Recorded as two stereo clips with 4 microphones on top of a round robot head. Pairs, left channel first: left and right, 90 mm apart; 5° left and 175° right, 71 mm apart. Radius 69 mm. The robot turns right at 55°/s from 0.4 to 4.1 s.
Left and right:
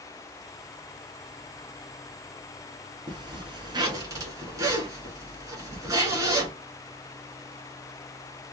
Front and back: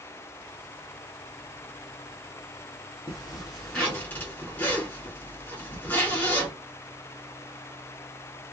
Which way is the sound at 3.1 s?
110° right.